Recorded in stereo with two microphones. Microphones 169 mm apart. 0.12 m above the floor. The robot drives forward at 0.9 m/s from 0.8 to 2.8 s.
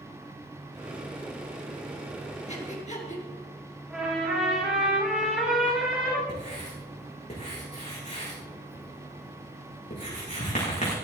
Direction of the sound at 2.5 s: 40° left (ahead or behind).